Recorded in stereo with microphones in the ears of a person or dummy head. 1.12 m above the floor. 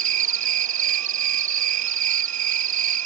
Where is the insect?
40° right (ahead or behind).